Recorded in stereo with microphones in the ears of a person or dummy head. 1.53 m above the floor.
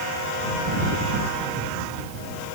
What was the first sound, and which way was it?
Only background noise.